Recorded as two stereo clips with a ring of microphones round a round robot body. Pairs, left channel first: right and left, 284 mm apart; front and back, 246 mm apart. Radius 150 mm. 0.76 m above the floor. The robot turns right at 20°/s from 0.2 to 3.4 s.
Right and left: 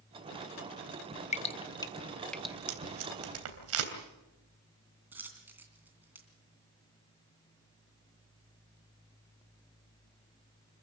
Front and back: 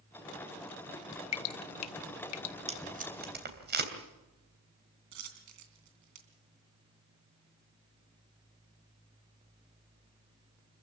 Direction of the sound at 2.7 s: 115° left.